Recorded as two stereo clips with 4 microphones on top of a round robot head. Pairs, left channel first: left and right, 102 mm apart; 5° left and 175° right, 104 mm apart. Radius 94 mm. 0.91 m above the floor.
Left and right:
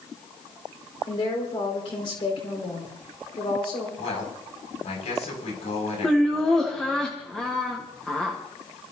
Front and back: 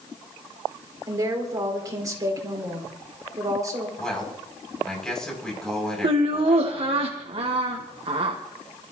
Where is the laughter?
170° left, 1.4 m.